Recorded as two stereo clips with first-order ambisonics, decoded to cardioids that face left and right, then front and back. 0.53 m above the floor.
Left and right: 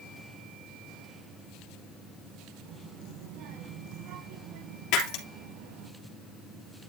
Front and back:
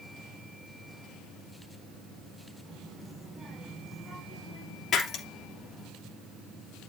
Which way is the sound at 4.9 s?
65° left.